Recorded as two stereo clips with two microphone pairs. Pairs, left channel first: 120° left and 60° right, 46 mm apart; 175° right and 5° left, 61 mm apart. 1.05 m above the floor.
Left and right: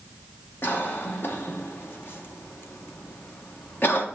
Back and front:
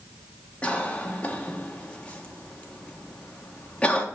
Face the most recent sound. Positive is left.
turn(degrees=120)